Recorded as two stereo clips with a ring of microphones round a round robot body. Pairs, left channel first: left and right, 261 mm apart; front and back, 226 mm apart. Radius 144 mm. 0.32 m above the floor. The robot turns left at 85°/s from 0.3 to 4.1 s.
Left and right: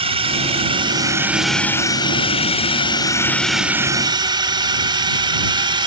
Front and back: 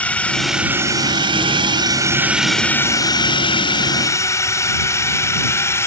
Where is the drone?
75° right; by 5.9 s 60° right.